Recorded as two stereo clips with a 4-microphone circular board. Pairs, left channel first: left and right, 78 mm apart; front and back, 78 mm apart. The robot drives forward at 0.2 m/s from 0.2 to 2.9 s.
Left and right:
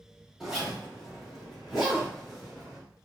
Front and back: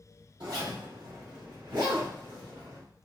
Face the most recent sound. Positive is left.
turn(degrees=-175)